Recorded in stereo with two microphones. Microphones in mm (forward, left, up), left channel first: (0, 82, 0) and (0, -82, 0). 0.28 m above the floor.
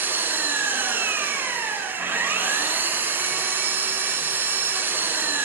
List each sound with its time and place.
0.0 s an engine running: 10° right (ahead or behind), 1.1 m